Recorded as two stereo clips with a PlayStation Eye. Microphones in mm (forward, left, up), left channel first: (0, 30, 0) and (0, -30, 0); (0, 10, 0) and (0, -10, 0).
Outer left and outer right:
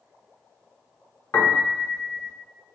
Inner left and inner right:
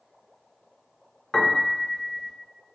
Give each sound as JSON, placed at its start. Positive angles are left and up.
{"t": 1.3, "sound": "a piano", "side_deg": 50, "distance_m": 1.2}